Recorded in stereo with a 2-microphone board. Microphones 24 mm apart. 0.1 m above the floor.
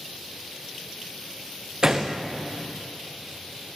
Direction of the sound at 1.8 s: 35° right (ahead or behind).